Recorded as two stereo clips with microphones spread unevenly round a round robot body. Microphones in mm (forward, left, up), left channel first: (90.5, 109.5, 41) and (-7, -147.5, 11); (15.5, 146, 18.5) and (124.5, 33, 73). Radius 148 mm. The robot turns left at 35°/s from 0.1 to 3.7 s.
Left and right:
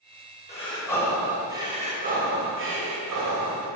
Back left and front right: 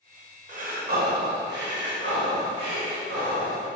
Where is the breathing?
Straight ahead, 1.5 m; by 3.7 s 110° right, 1.5 m.